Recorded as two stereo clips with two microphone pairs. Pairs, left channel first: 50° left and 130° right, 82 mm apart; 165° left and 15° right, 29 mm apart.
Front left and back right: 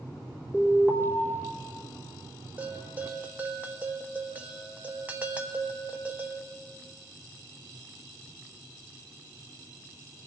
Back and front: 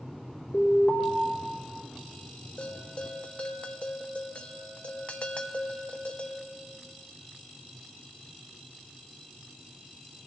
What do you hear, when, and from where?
0.5 s an alarm: 170° left, 3 m
2.6 s a bell: 165° left, 0.7 m